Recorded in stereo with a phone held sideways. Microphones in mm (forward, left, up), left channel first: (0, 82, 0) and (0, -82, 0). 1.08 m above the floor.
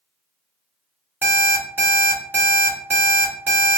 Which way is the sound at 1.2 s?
10° right (ahead or behind).